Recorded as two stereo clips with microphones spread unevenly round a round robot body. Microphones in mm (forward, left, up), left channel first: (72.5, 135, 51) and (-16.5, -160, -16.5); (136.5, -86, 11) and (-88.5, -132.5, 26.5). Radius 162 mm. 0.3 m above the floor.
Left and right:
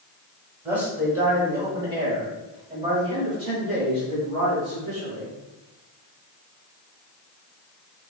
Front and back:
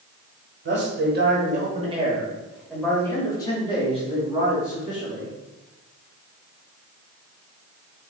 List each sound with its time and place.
0.7 s a man speaking: straight behind, 1.4 m; by 5.3 s 40° right, 2.5 m